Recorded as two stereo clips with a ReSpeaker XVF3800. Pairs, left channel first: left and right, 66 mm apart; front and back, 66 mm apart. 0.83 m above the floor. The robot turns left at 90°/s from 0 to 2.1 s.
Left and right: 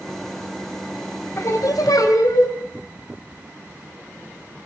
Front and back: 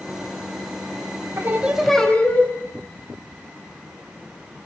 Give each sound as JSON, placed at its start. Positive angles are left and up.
{"t": 1.4, "sound": "singing", "azimuth_deg": 135, "distance_m": 3.0}